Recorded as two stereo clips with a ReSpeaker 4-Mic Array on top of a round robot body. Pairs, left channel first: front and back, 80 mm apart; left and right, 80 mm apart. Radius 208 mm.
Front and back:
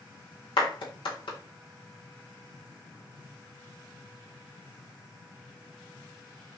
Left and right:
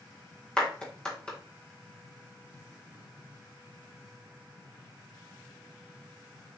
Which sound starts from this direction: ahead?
A clap, at 0.6 s.